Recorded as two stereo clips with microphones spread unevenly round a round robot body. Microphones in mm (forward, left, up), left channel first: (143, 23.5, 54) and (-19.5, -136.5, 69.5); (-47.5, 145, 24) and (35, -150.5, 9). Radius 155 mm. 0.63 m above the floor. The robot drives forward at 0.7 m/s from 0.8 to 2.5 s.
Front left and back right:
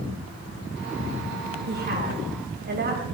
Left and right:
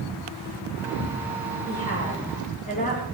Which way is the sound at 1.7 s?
170° left.